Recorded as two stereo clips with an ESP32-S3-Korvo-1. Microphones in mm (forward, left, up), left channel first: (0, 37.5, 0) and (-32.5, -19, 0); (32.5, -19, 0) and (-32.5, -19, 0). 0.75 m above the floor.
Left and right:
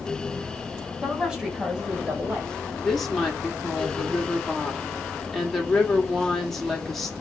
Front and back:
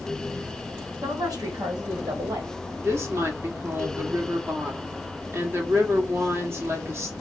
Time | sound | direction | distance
1.0 | a woman speaking | 160° left | 2.5 m
2.8 | a woman speaking | 145° left | 1.5 m